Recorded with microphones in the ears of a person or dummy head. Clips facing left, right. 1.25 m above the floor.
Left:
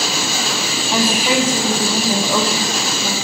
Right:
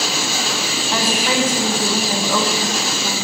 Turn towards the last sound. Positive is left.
turn(degrees=5)  # may be behind; listen again after turning